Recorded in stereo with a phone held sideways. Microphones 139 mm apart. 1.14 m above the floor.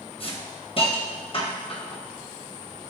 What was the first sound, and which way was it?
A hiss, 40° left (ahead or behind).